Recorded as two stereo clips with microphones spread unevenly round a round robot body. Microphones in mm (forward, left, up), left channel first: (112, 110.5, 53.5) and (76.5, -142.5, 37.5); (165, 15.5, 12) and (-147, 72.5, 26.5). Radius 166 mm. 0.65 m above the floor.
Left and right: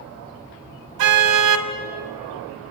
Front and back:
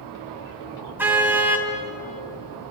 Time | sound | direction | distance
1.0 | a car horn | 105° right | 2 m